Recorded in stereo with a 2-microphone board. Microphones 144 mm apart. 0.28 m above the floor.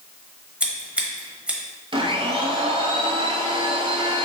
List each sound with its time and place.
0.6 s scissors: 10° right (ahead or behind), 1.0 m
1.9 s a blender: 40° right (ahead or behind), 0.8 m